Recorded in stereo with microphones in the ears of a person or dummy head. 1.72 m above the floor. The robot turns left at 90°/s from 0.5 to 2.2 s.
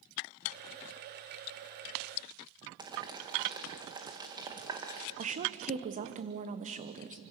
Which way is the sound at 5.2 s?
40° right (ahead or behind).